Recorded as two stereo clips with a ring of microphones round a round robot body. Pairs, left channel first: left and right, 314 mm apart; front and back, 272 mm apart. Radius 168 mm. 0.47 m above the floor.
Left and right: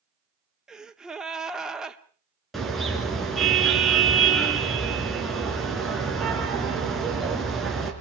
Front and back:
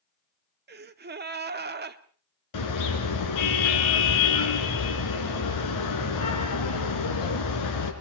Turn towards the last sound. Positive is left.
turn(degrees=0)